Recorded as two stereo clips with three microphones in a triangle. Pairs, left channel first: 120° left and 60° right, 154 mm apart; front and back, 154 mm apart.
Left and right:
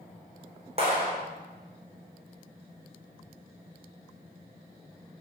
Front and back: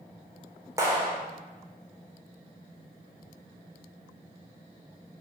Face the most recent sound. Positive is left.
turn(degrees=-110)